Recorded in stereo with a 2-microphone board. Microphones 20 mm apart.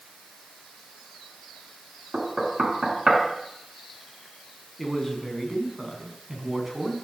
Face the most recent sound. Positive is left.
turn(degrees=0)  # may be behind; listen again after turning